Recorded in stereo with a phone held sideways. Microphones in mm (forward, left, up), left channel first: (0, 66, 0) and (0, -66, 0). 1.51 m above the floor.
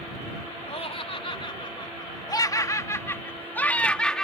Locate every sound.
0.7 s laughter: 50° left (ahead or behind); by 4.2 s 5° left (ahead or behind)